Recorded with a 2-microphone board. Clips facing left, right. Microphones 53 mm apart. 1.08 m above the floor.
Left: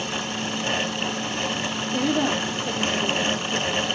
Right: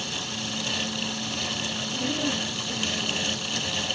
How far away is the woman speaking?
About 3 m.